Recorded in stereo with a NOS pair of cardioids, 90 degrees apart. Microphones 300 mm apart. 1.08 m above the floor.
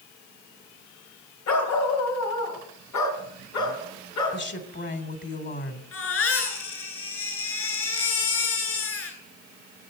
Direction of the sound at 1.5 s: 70° left.